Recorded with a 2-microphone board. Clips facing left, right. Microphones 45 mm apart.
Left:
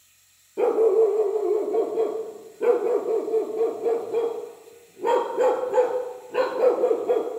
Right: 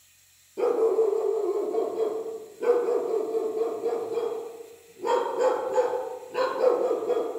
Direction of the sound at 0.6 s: 25° left (ahead or behind).